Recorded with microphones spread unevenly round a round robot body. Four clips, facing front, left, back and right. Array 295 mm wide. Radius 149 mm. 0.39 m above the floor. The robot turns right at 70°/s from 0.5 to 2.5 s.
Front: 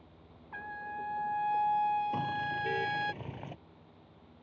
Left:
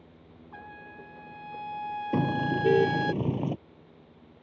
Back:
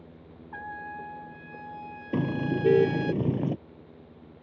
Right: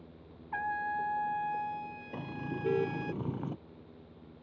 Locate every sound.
0.5 s a trumpet: 85° right; by 3.1 s 50° left
2.1 s a car horn: 130° left; by 3.6 s 155° left